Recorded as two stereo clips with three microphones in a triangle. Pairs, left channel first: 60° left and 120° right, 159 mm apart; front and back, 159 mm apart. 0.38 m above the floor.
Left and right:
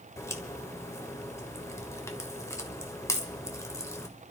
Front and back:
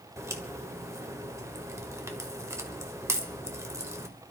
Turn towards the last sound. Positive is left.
turn(degrees=120)